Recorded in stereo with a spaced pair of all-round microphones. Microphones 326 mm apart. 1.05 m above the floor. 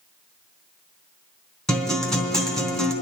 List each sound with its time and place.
1.7 s a guitar: centre (ahead or behind), 2.5 m